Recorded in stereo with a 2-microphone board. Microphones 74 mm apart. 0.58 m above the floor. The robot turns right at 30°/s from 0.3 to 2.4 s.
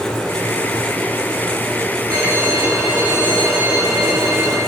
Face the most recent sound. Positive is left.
turn(degrees=-30)  # may be behind; listen again after turning